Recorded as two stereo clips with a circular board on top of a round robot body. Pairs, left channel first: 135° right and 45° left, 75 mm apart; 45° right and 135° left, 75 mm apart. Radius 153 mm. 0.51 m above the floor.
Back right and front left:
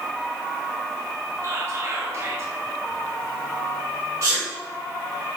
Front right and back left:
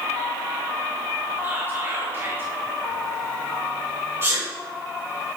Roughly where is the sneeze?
Left.